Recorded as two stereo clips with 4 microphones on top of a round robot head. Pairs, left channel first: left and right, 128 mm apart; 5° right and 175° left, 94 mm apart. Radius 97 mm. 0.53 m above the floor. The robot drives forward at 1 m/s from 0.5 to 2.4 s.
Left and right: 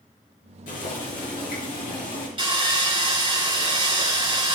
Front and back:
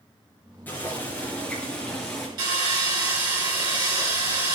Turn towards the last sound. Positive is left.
turn(degrees=-135)